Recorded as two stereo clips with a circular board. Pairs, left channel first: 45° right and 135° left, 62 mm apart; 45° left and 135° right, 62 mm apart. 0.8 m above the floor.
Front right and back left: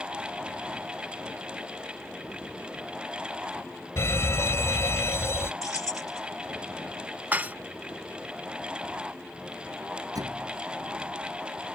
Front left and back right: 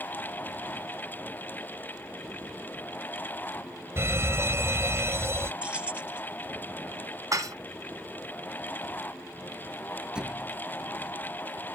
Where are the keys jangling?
65° right.